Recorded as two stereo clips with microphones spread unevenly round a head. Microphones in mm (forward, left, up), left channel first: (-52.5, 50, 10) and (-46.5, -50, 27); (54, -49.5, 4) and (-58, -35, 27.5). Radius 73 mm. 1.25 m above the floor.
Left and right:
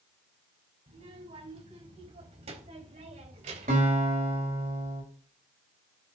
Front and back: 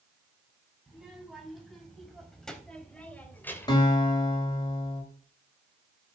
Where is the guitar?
65° right, 5 m.